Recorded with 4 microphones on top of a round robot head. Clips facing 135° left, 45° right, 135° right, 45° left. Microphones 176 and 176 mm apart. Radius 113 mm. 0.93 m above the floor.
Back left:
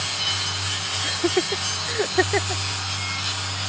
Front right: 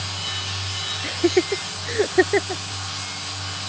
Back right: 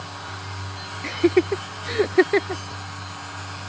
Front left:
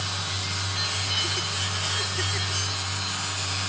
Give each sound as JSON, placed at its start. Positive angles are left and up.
{"t": 1.0, "sound": "laughter", "azimuth_deg": -115}